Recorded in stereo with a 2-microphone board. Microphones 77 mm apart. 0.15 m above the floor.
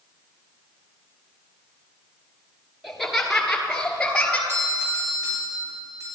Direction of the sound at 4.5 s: 45° right (ahead or behind).